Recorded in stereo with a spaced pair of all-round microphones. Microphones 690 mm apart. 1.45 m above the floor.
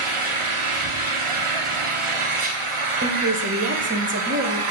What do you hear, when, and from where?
0.0 s an engine running: 50° right (ahead or behind), 0.7 m
3.0 s a woman speaking: 15° right (ahead or behind), 0.9 m